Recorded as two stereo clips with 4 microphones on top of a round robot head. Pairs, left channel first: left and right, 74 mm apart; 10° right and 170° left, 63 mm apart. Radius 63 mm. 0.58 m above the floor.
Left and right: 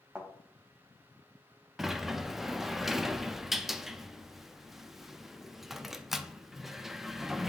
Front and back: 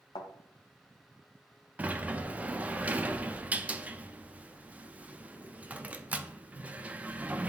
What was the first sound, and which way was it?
A thud, 10° right.